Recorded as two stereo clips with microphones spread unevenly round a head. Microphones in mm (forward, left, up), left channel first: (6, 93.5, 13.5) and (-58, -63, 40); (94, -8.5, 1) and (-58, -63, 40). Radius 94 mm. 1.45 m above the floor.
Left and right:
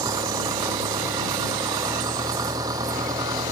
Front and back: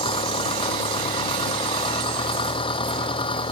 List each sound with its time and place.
0.0 s an engine running: 40° right